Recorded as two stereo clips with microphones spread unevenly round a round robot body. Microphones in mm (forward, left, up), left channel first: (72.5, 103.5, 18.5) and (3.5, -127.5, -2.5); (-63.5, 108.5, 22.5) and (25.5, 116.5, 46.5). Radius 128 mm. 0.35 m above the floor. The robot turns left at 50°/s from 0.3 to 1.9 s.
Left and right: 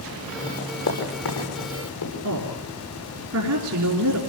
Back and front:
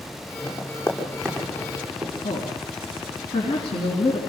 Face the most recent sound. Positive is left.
turn(degrees=-145)